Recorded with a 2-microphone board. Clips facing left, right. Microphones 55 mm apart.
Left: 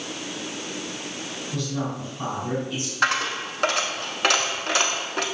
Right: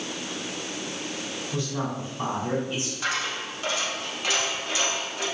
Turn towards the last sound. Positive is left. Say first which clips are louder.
# left 8 dB
turn(degrees=80)